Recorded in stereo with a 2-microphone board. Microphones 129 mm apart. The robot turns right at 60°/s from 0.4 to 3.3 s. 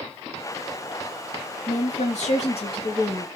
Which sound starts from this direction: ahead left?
A woman speaking, at 1.7 s.